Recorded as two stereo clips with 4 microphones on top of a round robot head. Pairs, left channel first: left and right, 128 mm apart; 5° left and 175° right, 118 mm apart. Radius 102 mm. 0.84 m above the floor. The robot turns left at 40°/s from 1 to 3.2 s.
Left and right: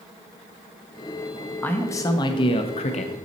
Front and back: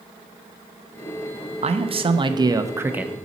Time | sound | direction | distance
1.6 | a man speaking | 165° left | 0.8 m